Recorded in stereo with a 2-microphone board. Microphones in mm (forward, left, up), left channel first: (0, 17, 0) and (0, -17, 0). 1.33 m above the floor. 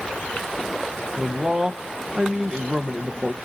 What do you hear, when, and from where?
1.2 s a man speaking: 20° right (ahead or behind), 1.0 m